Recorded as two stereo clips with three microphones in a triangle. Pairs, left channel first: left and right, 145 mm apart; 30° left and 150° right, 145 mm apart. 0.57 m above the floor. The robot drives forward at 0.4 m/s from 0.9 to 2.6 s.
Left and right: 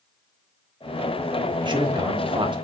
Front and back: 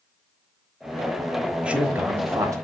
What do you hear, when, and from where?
1.6 s a man speaking: 75° right, 1.3 m; by 2.5 s 105° right, 1.3 m